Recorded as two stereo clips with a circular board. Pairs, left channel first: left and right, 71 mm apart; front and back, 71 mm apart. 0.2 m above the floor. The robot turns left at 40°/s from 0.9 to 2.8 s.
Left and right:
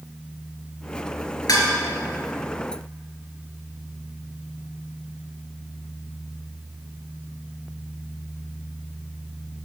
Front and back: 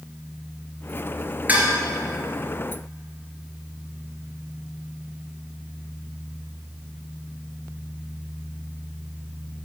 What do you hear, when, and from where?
1.5 s dishes clattering: 115° left, 2.5 m; by 1.7 s 105° left, 2.5 m